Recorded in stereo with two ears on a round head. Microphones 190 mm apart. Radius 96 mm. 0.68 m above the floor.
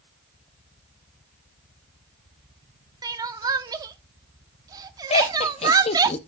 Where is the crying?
20° right (ahead or behind), 0.6 m.